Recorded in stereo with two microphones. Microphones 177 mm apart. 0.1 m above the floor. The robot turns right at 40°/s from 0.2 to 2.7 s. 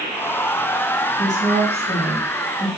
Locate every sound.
1.2 s a woman speaking: 40° left, 3 m; by 2.7 s 100° left, 3 m